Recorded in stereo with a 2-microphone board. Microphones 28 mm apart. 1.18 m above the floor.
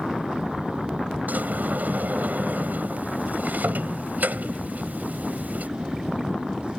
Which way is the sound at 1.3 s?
80° right.